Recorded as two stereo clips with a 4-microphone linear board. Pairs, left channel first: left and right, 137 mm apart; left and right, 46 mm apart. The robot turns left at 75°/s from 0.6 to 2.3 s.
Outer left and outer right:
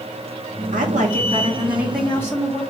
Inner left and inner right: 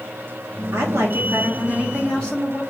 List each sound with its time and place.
0.7 s a woman speaking: 85° right, 1.6 m; by 2.6 s 160° left, 1.6 m